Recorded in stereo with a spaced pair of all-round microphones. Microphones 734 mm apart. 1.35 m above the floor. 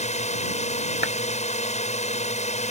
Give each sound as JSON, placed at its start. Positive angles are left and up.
{"t": 0.0, "sound": "a drone", "side_deg": 10}
{"t": 1.0, "sound": "a clap", "side_deg": -35}